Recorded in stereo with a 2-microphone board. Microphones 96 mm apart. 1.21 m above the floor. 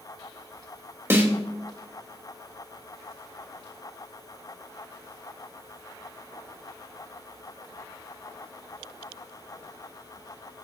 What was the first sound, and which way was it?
A snare drum, 25° right (ahead or behind).